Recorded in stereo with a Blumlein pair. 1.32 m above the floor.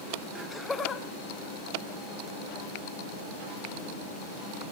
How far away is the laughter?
About 0.7 m.